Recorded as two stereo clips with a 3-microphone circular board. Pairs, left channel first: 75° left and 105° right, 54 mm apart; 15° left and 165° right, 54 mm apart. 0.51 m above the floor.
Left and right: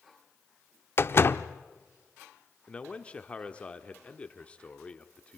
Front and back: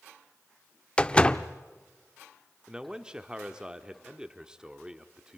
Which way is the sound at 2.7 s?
130° left.